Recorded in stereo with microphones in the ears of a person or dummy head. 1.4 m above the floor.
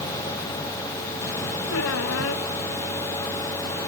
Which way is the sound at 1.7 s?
75° left (ahead or behind).